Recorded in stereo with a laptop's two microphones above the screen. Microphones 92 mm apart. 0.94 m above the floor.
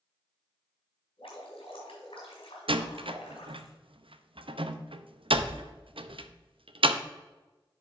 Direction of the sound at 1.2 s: 75° left (ahead or behind).